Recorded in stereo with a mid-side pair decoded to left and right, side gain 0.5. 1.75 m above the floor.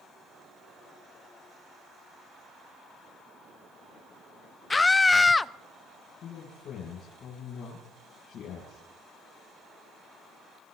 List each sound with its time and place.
4.7 s a scream: 20° left, 0.5 m
6.2 s a man speaking: 60° left, 7 m